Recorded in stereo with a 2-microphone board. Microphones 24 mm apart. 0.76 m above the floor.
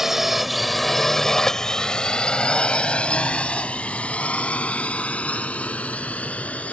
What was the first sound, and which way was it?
A drone, 20° right (ahead or behind).